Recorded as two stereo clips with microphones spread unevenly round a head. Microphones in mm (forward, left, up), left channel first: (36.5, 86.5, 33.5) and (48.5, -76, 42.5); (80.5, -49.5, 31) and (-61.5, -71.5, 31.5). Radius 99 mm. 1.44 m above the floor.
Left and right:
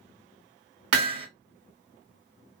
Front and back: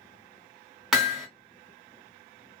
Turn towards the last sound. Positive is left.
turn(degrees=-85)